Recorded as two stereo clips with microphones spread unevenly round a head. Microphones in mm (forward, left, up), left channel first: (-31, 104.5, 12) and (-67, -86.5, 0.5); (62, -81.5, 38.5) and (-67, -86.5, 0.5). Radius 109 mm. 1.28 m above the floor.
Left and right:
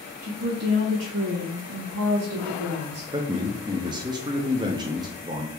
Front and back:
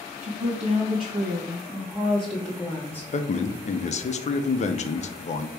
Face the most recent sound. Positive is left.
turn(degrees=-30)